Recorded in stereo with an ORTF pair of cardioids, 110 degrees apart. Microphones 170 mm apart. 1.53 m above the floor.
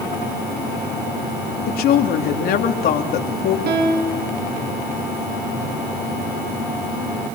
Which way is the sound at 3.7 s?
65° right.